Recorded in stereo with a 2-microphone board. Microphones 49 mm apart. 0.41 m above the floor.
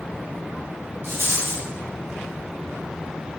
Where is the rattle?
60° right (ahead or behind), 1.2 m.